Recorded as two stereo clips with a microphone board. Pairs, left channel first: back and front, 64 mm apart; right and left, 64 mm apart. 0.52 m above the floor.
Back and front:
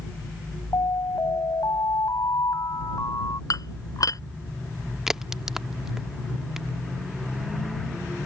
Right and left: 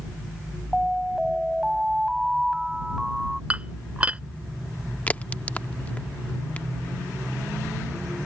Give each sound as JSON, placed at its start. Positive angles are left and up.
{"t": 0.7, "sound": "an alarm", "azimuth_deg": 175}
{"t": 3.5, "sound": "dishes clattering", "azimuth_deg": 160}
{"t": 5.1, "sound": "a crack", "azimuth_deg": -75}